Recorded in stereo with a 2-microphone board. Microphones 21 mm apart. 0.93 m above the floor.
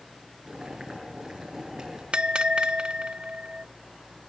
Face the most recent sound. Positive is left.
turn(degrees=-60)  # may be behind; listen again after turning